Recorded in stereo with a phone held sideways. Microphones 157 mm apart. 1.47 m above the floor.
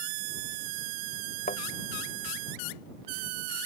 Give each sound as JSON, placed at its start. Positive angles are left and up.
{"t": 1.5, "sound": "a thud", "side_deg": 70}